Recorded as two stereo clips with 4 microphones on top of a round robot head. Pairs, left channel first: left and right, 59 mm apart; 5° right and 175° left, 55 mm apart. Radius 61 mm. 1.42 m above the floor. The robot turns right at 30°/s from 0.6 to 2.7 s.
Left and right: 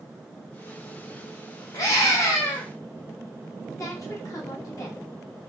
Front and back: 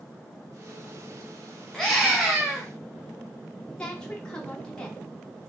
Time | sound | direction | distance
1.7 | a scream | 80° left | 0.7 m
3.8 | a woman speaking | 70° left | 0.6 m